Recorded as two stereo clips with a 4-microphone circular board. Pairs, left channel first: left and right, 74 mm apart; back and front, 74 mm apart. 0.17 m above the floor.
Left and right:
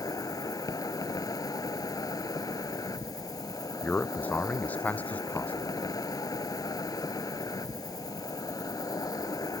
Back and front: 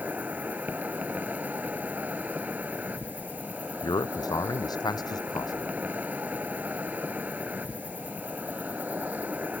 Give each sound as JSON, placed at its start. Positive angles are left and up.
{"t": 0.0, "sound": "an insect", "azimuth_deg": 65}
{"t": 3.8, "sound": "a man speaking", "azimuth_deg": 160}